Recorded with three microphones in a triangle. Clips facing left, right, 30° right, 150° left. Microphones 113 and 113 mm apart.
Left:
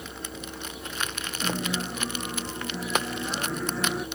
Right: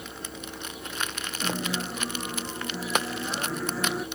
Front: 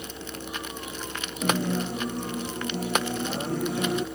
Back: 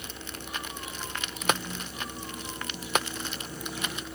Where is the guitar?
Straight ahead.